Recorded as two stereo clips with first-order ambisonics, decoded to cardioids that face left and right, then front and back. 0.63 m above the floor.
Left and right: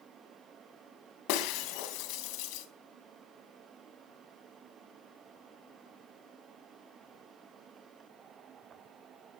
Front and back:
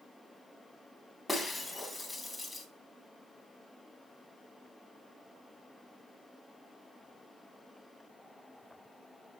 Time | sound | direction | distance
1.3 | breaking glass | 85° left | 3 m